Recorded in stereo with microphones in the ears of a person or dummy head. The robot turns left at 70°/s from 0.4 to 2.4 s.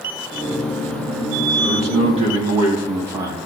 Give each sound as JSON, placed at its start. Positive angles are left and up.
{"t": 1.6, "sound": "a man speaking", "azimuth_deg": -105, "distance_m": 2.0}